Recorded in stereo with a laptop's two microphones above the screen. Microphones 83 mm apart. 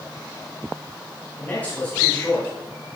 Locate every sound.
1.4 s a man speaking: 20° left (ahead or behind), 5 m